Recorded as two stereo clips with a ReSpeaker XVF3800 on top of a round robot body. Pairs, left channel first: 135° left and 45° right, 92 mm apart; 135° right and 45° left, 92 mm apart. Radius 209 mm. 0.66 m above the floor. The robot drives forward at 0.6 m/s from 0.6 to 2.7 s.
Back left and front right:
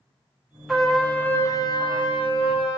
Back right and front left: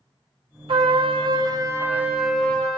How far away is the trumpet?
About 0.8 m.